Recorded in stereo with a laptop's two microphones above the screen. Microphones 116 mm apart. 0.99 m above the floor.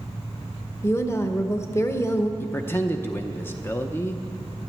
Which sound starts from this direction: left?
A woman speaking, at 0.8 s.